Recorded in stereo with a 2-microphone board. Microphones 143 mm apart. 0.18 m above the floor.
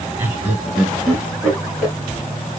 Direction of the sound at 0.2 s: 15° right (ahead or behind).